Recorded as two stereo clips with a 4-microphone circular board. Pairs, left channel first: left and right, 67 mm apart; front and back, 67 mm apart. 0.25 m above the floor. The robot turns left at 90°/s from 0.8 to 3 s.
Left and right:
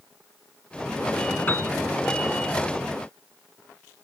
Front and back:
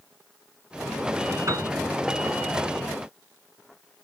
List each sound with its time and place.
1.5 s a piano: 155° left, 1.8 m; by 1.7 s 130° left, 1.8 m